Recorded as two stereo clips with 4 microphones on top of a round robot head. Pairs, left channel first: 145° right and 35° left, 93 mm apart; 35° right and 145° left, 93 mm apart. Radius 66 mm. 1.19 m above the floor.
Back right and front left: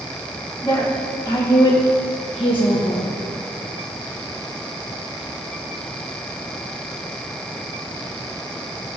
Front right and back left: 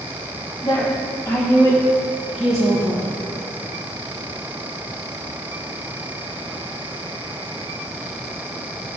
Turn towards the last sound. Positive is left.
turn(degrees=-145)